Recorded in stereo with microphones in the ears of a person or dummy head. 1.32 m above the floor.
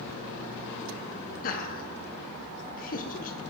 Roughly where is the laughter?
Left.